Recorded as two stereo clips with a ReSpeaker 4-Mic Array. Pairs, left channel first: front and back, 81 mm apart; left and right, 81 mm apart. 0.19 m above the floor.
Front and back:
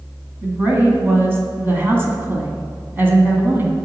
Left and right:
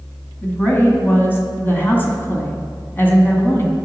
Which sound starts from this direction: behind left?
A woman speaking, at 0.4 s.